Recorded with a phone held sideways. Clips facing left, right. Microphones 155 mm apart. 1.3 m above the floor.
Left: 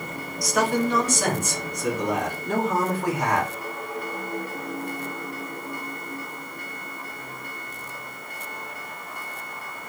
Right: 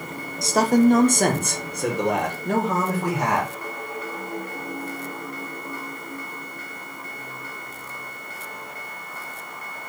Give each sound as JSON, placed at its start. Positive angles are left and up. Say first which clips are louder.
{"t": 0.4, "sound": "a man speaking", "louder": "right 6 dB", "side_deg": -25, "distance_m": 0.5}